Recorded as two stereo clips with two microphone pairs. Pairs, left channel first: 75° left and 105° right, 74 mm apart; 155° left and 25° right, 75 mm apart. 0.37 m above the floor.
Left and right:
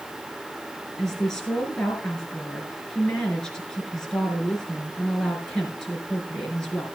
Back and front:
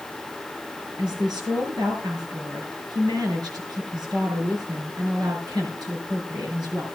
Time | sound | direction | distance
1.0 | a woman speaking | 10° right | 5 m